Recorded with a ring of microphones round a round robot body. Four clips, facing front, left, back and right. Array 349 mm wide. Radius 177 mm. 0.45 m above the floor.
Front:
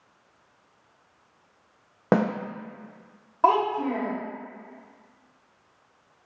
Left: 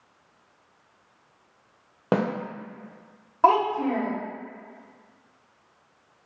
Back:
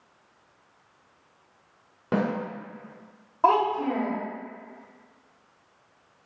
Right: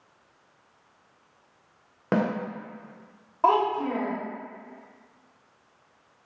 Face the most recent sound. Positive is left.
turn(degrees=60)